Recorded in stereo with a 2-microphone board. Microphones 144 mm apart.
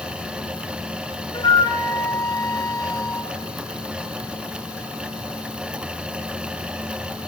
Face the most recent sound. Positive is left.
turn(degrees=30)  # may be behind; listen again after turning